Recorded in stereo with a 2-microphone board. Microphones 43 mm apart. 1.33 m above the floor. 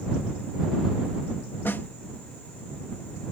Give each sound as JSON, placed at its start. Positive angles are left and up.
{"t": 1.6, "sound": "a snare drum", "side_deg": 55}